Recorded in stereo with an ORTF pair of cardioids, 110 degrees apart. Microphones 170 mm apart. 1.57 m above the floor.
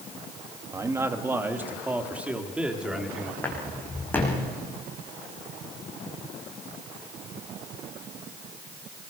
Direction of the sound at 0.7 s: 20° right.